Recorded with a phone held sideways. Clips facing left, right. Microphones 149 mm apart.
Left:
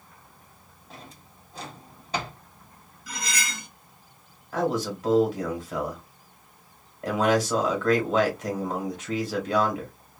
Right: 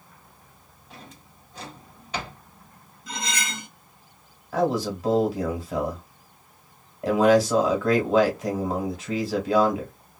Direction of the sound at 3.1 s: 25° right (ahead or behind).